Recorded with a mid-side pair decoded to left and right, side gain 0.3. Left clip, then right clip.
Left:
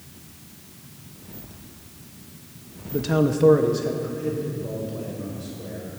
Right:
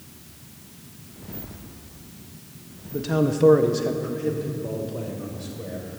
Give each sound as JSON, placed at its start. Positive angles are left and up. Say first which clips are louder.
{"t": 2.9, "sound": "a man speaking", "louder": "left 2 dB", "azimuth_deg": 45, "distance_m": 0.8}